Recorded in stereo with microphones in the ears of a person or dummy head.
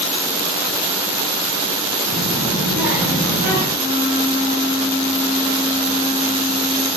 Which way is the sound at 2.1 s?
70° right (ahead or behind).